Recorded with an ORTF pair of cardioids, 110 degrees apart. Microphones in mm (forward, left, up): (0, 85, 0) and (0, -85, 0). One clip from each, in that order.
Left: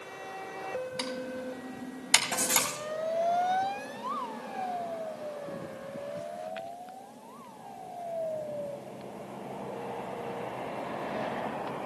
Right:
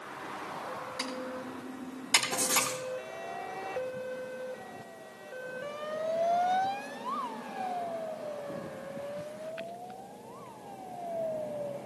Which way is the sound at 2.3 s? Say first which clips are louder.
Even; 35° left.